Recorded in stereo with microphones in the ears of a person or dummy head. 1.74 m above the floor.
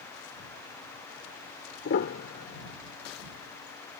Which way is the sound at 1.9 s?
50° left (ahead or behind).